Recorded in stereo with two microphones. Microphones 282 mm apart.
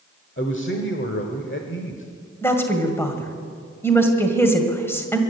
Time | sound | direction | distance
0.4 | a man speaking | 45° left (ahead or behind) | 1.2 m
2.4 | a woman speaking | 10° left (ahead or behind) | 2.0 m